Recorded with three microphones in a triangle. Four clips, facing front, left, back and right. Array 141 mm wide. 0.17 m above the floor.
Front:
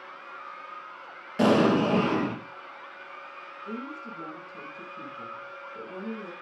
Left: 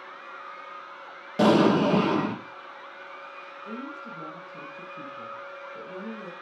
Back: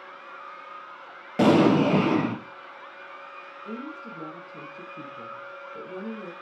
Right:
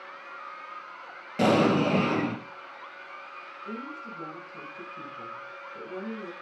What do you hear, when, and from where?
1.4 s an explosion: 165° left, 3 m
3.6 s a woman speaking: straight behind, 4 m